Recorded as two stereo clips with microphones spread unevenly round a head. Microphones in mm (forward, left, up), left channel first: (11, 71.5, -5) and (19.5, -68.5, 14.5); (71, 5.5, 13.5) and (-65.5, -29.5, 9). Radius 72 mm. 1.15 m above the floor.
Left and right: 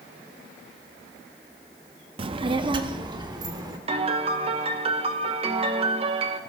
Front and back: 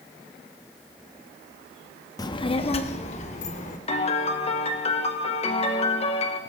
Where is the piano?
35° right, 1.0 m.